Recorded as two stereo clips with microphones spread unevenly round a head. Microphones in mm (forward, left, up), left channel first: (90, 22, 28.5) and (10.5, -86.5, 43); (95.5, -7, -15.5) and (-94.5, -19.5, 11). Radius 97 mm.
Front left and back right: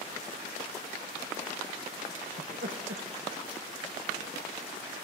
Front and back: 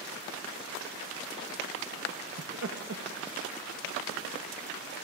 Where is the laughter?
160° right, 1.0 m.